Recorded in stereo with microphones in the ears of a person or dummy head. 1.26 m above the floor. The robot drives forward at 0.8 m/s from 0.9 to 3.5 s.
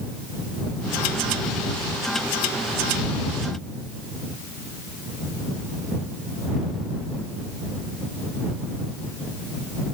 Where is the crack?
No crack in this recording.